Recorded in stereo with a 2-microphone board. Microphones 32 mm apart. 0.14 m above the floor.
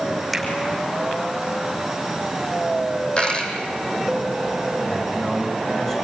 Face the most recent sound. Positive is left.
turn(degrees=10)  # may be behind; listen again after turning